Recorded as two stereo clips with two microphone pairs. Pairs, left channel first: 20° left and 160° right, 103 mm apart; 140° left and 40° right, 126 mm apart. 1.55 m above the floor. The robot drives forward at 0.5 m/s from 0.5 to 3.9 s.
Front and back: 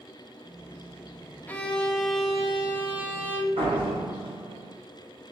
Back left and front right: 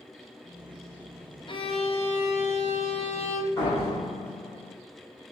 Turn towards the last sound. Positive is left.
turn(degrees=-155)